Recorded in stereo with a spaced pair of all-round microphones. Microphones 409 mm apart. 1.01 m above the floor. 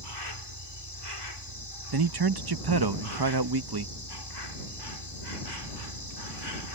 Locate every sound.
0.0 s an insect: 75° left (ahead or behind)
1.9 s a man speaking: 65° right (ahead or behind)